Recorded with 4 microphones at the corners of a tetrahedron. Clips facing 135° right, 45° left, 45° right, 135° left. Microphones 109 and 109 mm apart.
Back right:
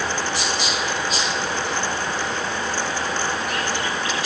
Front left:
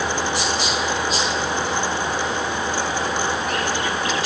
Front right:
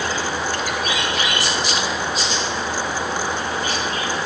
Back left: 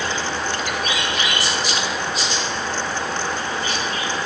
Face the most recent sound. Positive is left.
No sound to turn to.